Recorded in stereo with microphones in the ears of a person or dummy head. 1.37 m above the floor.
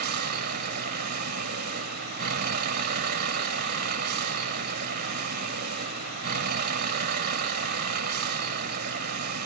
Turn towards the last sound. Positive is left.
turn(degrees=-50)  # may be behind; listen again after turning